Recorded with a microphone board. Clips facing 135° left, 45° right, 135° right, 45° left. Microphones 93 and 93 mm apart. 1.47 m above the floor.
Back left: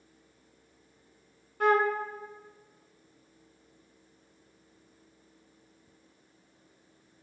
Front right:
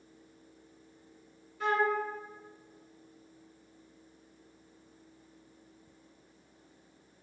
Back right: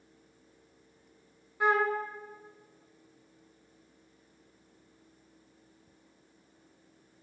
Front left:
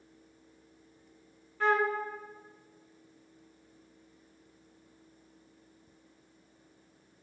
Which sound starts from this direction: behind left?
A flute, at 1.6 s.